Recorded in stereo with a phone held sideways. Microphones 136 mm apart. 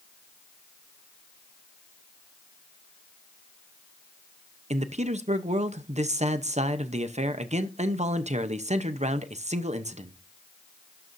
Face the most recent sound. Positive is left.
turn(degrees=-55)  # may be behind; listen again after turning